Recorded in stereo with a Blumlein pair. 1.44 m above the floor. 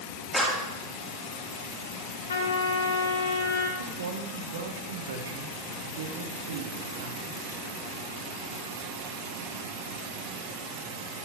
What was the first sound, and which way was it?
A clap, 5° left.